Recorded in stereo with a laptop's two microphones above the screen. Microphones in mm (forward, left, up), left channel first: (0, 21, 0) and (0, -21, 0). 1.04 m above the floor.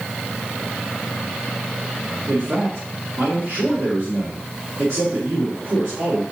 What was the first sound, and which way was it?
A man speaking, 70° right (ahead or behind).